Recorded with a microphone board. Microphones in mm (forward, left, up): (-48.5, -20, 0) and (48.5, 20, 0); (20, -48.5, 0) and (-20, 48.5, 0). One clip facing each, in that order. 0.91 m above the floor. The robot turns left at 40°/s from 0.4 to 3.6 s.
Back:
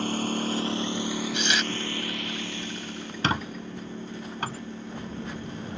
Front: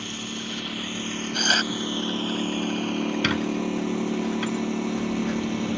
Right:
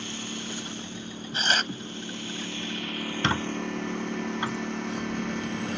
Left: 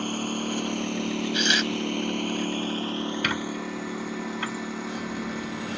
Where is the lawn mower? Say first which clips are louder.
Back 7 dB, left 8 dB; 155° left; by 5.8 s 25° left.